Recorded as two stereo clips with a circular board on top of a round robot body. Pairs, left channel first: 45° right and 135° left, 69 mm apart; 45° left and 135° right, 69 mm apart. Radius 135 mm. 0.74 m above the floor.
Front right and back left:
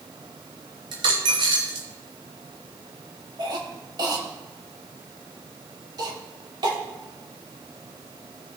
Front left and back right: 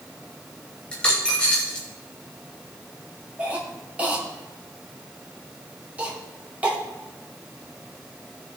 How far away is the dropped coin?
About 1.1 m.